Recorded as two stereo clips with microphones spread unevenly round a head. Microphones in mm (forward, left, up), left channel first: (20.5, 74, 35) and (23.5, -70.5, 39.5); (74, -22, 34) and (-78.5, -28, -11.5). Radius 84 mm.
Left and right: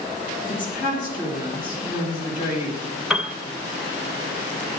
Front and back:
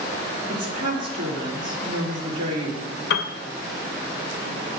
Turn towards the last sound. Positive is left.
turn(degrees=0)